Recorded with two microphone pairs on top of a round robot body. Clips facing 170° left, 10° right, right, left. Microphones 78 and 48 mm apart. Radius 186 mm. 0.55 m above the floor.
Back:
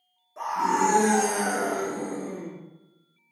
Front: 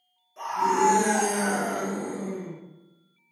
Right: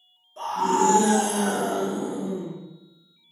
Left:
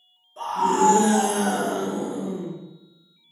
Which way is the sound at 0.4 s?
Straight behind.